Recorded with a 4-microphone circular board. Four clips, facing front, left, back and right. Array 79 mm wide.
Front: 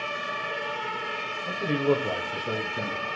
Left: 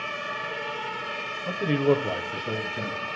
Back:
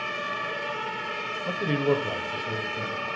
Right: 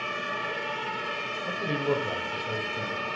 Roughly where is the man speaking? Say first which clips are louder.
Left 6 dB, even; behind left.